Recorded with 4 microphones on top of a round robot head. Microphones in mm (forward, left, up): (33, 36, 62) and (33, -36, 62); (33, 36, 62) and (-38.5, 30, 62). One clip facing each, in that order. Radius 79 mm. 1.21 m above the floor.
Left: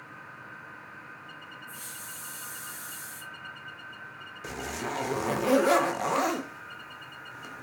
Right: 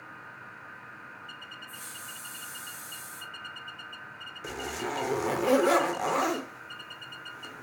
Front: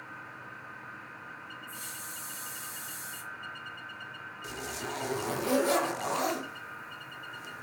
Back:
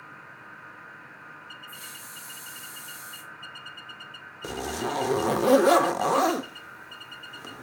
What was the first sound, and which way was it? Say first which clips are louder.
A hiss: even, even; 60° left.